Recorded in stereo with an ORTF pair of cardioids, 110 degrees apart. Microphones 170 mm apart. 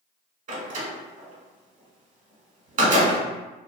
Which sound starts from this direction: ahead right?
A door slam, at 0.5 s.